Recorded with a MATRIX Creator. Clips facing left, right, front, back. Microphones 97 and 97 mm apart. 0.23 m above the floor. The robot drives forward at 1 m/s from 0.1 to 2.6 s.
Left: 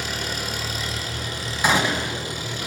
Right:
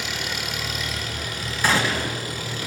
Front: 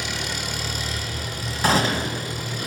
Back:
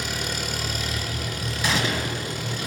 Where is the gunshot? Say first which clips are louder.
Left 1 dB, front 5 dB; 25° left, 1.7 m; by 2.3 s 40° left, 1.4 m.